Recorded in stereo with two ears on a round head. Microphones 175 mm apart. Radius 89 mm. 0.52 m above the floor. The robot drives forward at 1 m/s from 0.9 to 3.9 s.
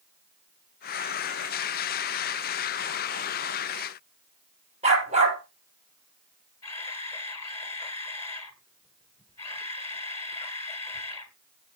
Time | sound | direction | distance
4.8 | a dog barking | 35° right (ahead or behind) | 4 m
6.6 | a camera shutter | 15° left (ahead or behind) | 2.0 m